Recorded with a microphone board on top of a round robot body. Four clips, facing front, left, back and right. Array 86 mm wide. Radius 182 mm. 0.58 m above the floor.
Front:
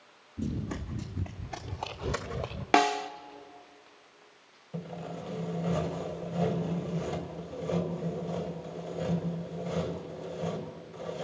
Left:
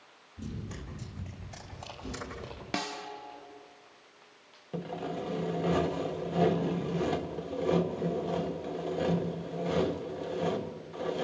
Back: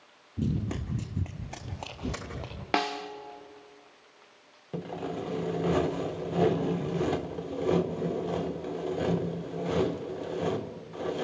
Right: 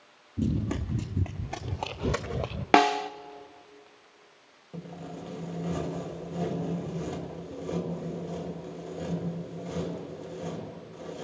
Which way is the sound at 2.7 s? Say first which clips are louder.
Right 16 dB, front 5 dB; 80° right.